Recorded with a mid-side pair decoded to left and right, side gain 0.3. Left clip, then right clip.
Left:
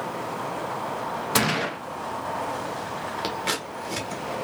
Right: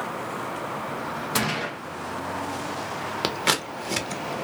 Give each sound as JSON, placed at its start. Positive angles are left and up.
{"t": 1.4, "sound": "a gunshot", "azimuth_deg": 45, "distance_m": 0.6}
{"t": 3.2, "sound": "scissors", "azimuth_deg": -65, "distance_m": 0.6}